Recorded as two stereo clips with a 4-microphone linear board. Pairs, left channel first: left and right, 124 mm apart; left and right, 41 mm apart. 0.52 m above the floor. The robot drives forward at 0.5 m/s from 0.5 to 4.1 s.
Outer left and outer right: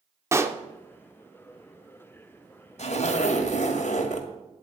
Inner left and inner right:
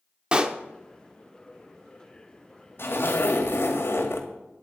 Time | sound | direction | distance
0.3 | a pop | 20° right (ahead or behind) | 0.9 m
2.8 | a zipper | 60° left (ahead or behind) | 2 m